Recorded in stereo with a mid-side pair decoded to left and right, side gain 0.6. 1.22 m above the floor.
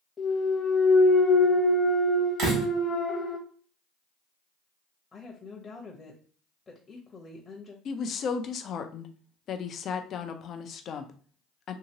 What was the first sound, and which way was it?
A clunk, 25° left.